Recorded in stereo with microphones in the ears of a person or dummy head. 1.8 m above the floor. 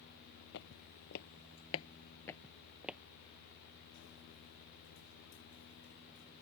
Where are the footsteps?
50° left (ahead or behind); by 3.0 s 10° right (ahead or behind).